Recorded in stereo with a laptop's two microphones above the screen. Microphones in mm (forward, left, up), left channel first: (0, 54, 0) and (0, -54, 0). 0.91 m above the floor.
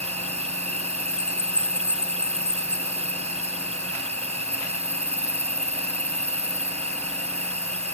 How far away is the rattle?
I don't hear a rattle.